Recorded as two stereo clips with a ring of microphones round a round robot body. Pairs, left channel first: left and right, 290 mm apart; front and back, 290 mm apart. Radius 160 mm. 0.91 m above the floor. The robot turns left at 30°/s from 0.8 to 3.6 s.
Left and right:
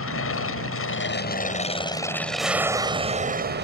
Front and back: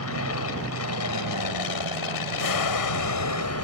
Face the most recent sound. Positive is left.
turn(degrees=-35)